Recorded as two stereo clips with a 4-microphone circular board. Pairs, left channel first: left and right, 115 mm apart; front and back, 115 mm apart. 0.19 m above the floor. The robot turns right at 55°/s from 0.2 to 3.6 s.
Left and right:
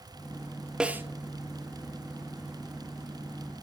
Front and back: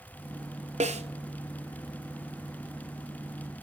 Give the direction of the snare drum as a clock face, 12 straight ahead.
6 o'clock.